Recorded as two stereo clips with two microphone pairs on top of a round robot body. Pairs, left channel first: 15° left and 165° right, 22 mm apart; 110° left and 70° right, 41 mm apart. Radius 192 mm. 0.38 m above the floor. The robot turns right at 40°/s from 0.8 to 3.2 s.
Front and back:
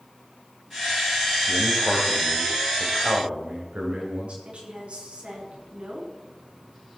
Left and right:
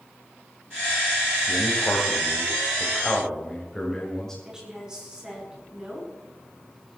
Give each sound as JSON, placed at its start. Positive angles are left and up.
{"t": 1.5, "sound": "a man speaking", "azimuth_deg": 115, "distance_m": 3.5}
{"t": 4.5, "sound": "a woman speaking", "azimuth_deg": -145, "distance_m": 7.5}